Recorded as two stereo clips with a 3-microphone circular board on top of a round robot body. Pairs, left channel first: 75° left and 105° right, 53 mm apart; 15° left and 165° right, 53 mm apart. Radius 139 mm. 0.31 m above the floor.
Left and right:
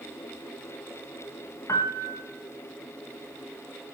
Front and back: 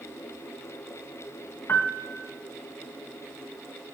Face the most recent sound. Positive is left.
turn(degrees=55)